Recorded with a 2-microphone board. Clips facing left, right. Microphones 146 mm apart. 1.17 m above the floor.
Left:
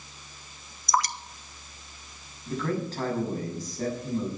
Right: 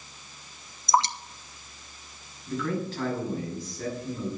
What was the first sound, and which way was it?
Dripping, 25° right (ahead or behind).